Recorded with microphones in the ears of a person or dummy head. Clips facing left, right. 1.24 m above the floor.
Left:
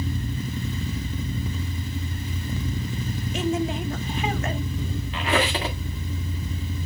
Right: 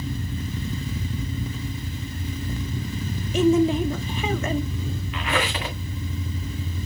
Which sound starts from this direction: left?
A squeak, at 5.1 s.